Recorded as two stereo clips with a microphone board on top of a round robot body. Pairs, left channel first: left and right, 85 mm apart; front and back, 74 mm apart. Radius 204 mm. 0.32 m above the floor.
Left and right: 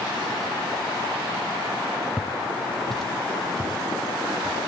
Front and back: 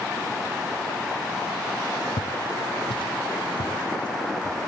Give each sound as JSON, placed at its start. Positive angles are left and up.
{"t": 2.2, "sound": "footsteps", "azimuth_deg": 0, "distance_m": 0.9}